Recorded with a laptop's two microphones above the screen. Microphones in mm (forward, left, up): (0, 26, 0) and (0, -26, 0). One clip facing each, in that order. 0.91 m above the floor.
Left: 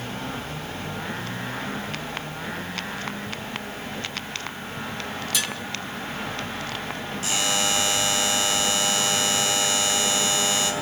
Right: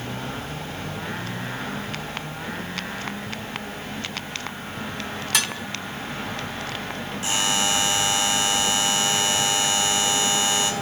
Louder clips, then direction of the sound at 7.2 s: Right 2 dB; 20° right (ahead or behind).